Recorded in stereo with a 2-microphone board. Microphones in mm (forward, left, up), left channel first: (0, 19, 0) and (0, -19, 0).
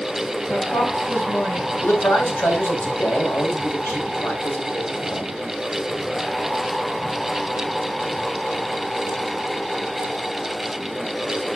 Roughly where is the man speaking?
Left.